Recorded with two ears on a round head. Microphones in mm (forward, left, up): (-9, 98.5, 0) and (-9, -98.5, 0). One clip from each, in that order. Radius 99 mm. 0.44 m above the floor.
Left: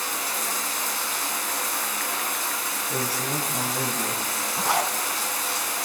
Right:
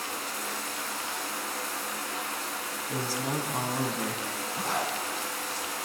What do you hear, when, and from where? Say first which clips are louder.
0.0 s running water: left 6 dB; 30° left (ahead or behind), 1.8 m
2.9 s a man speaking: left 2 dB; 35° right (ahead or behind), 3.5 m
4.6 s a zipper: left 6 dB; 60° left (ahead or behind), 2 m